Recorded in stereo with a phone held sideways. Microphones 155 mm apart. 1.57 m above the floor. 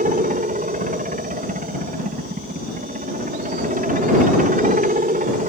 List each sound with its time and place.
0.0 s a helicopter: 60° right (ahead or behind)